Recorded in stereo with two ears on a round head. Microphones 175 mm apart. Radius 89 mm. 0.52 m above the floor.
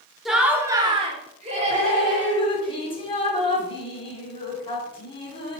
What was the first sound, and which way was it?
Laughter, centre (ahead or behind).